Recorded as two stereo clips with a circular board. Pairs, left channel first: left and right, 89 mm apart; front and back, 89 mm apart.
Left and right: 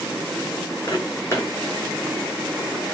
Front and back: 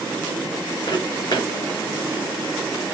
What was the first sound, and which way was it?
Footsteps, 25° left.